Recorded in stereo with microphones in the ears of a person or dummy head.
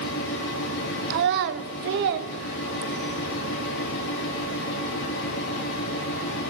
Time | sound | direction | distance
0.0 | a fan | 65° left (ahead or behind) | 5 m
1.1 | a child speaking | 55° right (ahead or behind) | 1.1 m